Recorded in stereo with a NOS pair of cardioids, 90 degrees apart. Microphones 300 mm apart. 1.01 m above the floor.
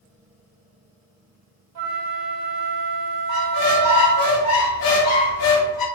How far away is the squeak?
About 0.9 m.